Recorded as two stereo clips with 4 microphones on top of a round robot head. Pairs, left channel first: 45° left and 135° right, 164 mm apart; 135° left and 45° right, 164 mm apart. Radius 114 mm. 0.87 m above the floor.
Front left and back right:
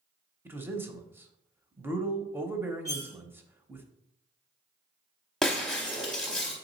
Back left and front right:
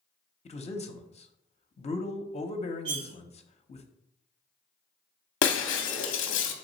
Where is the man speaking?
155° left, 0.7 m.